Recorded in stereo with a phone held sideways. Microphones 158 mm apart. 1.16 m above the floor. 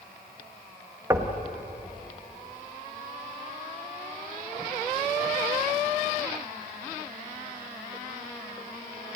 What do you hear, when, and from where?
1.1 s knocking: 20° right (ahead or behind), 1.6 m